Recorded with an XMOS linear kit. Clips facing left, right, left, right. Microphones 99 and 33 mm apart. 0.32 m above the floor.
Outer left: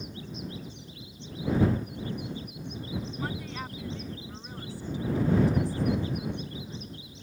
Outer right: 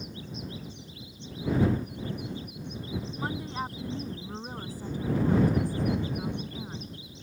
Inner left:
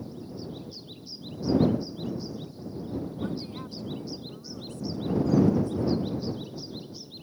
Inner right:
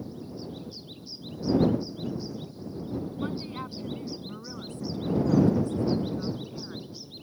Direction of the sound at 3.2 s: 25° right (ahead or behind).